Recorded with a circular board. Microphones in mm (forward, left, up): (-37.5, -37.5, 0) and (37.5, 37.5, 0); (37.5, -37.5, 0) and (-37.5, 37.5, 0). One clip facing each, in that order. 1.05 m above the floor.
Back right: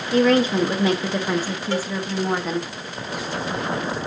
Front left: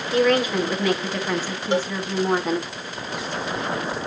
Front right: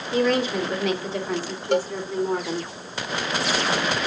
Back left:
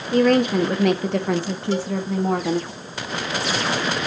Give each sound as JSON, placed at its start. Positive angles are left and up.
{"t": 0.1, "sound": "a woman speaking", "azimuth_deg": 170, "distance_m": 1.9}
{"t": 1.7, "sound": "a cowbell", "azimuth_deg": -25, "distance_m": 0.7}